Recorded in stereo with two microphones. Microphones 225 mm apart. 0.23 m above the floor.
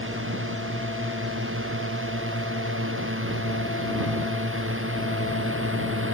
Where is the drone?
65° right (ahead or behind); by 6.2 s 70° right (ahead or behind).